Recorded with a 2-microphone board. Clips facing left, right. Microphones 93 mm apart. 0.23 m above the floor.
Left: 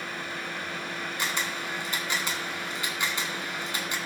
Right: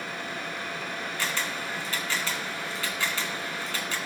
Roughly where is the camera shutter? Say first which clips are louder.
Even; centre.